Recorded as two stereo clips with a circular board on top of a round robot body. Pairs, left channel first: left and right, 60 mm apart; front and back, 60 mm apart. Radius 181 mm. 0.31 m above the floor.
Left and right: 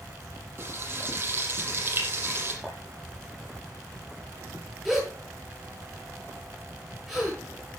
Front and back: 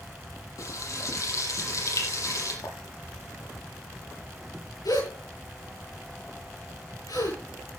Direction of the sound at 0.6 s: 35° right.